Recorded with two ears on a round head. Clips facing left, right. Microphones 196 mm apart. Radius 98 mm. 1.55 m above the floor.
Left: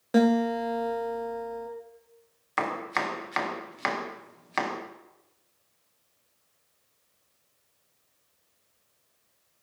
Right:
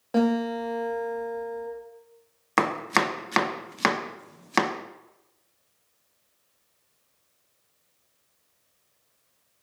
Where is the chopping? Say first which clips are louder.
Right 6 dB; 60° right (ahead or behind), 0.8 m.